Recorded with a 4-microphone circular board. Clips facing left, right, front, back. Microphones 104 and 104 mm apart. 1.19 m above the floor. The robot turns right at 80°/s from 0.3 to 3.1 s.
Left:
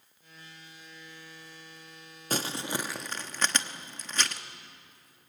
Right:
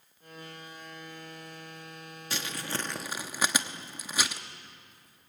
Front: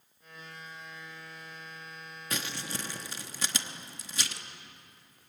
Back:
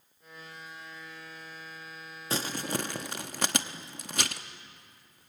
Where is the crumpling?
125° left, 0.9 m; by 4.4 s 170° right, 0.9 m.